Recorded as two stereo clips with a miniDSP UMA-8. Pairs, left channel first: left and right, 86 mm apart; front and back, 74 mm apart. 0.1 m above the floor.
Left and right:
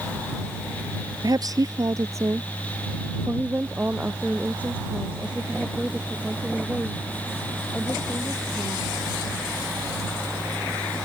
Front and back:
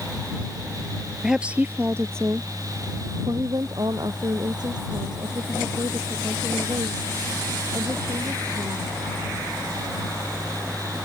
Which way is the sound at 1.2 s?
100° right.